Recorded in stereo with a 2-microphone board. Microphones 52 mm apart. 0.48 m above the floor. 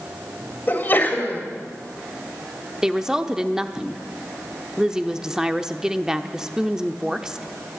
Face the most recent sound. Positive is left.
turn(degrees=-10)  # may be behind; listen again after turning